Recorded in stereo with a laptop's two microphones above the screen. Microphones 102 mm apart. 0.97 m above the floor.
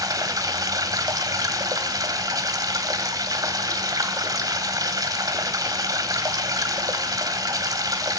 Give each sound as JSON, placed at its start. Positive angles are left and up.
{"t": 0.0, "sound": "running water", "side_deg": -35, "distance_m": 1.8}